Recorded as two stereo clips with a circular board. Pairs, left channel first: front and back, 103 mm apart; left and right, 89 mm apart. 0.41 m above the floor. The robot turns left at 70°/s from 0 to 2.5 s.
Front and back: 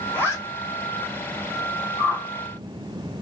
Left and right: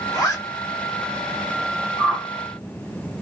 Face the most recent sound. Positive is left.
turn(degrees=-65)